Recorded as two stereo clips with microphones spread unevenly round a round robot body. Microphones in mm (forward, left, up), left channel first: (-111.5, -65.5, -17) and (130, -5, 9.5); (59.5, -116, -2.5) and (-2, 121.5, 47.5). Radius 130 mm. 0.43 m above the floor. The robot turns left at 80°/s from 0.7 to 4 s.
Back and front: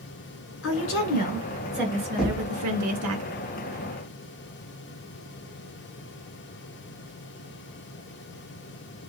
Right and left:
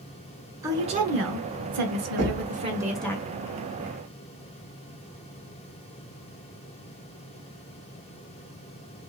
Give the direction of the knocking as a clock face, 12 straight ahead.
7 o'clock.